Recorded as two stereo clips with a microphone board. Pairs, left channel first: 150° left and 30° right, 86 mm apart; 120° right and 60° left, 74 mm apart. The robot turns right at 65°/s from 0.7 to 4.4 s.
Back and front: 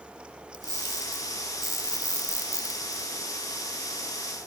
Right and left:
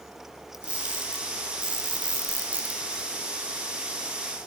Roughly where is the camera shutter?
Ahead.